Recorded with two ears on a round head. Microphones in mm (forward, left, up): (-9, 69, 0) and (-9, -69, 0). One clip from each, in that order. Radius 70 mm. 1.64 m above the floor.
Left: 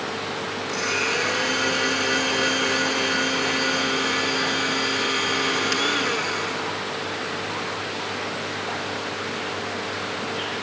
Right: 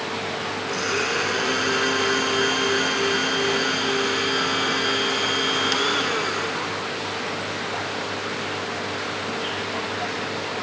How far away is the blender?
About 4 m.